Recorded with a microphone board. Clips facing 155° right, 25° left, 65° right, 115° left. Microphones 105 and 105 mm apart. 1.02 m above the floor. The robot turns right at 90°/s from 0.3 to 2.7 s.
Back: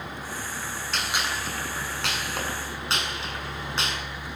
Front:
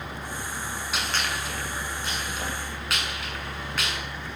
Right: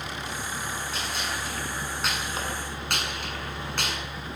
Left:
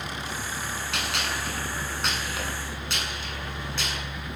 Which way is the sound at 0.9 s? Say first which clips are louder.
Even, left 1 dB; 105° left.